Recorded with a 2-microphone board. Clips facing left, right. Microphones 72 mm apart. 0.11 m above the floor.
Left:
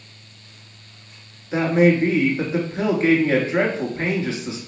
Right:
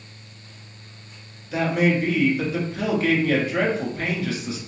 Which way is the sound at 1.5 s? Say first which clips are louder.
Left 4 dB; 30° left (ahead or behind).